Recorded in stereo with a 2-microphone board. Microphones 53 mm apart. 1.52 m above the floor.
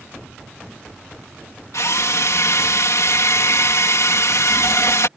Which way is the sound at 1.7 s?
80° left.